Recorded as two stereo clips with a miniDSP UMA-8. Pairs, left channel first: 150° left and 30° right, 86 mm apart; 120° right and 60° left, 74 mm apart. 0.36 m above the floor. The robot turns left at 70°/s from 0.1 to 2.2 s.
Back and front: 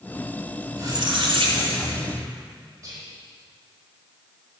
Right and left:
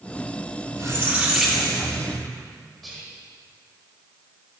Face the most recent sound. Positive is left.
turn(degrees=-30)